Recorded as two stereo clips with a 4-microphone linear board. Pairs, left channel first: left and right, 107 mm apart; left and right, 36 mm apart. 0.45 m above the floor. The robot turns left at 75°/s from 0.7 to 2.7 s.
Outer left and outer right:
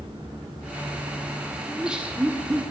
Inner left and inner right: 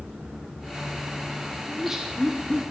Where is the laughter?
5° right (ahead or behind), 1.4 m; by 2.6 s 20° right (ahead or behind), 1.4 m.